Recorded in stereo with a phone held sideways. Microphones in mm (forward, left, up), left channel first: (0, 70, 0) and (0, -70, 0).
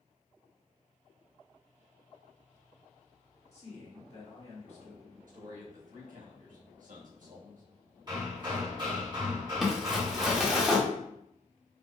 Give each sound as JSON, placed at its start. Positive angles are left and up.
{"t": 3.5, "sound": "a man speaking", "side_deg": 50, "distance_m": 1.3}
{"t": 5.3, "sound": "a man speaking", "side_deg": -70, "distance_m": 1.2}
{"t": 8.1, "sound": "hammering", "side_deg": -30, "distance_m": 1.2}
{"t": 9.6, "sound": "crumpling", "side_deg": 0, "distance_m": 0.9}